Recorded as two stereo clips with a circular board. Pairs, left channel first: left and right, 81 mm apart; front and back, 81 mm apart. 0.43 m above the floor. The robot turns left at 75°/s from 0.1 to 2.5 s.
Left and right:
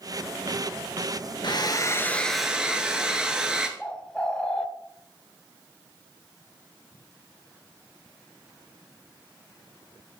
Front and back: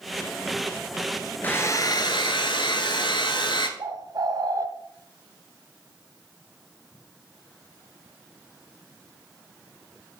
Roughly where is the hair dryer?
Left.